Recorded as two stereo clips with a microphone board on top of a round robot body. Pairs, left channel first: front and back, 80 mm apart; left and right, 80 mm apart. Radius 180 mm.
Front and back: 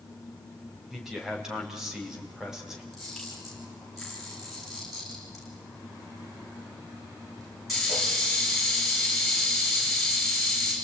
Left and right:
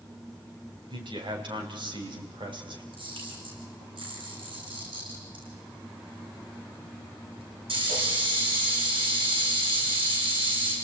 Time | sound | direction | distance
0.9 | a man speaking | 95° right | 5 m
2.9 | a camera shutter | 90° right | 8 m